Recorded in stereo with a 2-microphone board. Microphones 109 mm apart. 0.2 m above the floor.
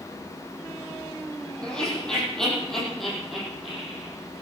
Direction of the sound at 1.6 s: 5° left (ahead or behind).